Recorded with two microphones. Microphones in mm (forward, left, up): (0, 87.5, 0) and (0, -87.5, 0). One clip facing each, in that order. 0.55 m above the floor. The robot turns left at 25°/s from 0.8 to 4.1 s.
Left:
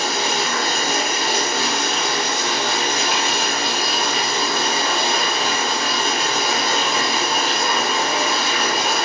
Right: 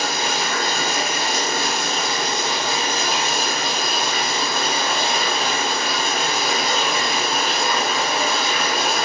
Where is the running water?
130° left, 2.0 m; by 9.1 s 45° left, 2.0 m.